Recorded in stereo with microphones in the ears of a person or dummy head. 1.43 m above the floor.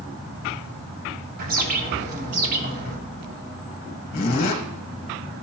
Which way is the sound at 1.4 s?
50° right (ahead or behind).